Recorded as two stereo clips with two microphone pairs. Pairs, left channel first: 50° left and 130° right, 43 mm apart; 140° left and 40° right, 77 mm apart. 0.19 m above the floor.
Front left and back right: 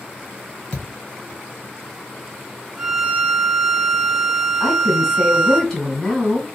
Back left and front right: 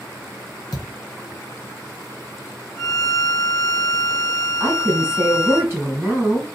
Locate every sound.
0.7 s a thud: 120° left, 1.3 m
2.8 s a violin: 165° left, 1.8 m
4.6 s a woman speaking: 25° right, 1.8 m